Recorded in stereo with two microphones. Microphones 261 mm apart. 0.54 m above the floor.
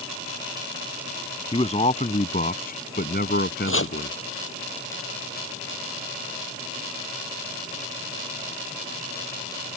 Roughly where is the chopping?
Left.